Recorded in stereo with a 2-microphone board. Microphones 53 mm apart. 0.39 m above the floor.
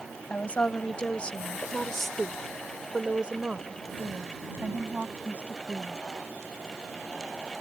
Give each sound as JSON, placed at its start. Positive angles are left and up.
{"t": 0.3, "sound": "a woman speaking", "side_deg": 30}